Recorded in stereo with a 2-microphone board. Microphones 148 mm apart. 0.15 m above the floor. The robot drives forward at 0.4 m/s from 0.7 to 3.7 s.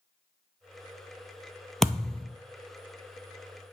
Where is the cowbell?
I don't hear a cowbell.